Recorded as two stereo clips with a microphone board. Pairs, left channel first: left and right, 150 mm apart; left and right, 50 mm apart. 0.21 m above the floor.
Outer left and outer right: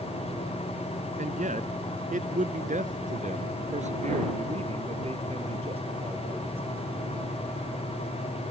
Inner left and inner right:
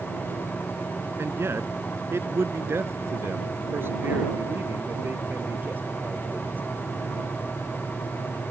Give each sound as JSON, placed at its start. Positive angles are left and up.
{"t": 1.2, "sound": "a man speaking", "side_deg": -60}